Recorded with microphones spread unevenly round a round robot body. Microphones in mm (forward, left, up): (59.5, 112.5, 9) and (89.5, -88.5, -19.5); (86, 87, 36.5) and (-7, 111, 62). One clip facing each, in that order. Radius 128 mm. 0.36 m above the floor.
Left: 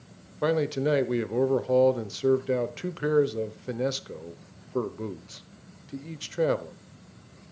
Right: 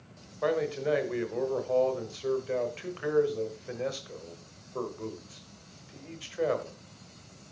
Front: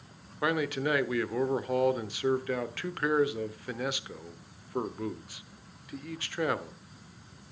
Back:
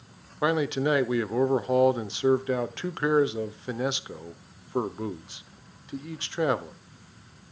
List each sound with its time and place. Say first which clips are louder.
0.4 s a man speaking: left 4 dB, back 4 dB; 95° left, 0.9 m